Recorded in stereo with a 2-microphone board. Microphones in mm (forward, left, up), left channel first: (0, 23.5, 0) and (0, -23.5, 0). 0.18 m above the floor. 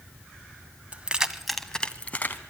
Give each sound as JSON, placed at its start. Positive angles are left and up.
{"t": 0.9, "sound": "keys jangling", "side_deg": -30, "distance_m": 0.9}